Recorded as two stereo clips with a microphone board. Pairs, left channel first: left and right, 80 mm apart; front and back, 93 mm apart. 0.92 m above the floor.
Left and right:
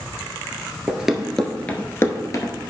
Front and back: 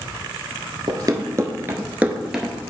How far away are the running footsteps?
About 1.1 m.